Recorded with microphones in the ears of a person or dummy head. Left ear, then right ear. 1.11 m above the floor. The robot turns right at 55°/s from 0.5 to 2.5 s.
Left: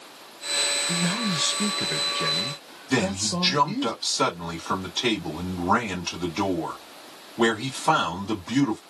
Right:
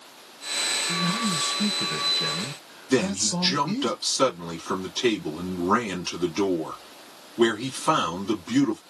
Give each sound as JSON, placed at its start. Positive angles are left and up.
{"t": 0.9, "sound": "a man speaking", "azimuth_deg": 110, "distance_m": 0.6}
{"t": 2.9, "sound": "a man speaking", "side_deg": -15, "distance_m": 2.0}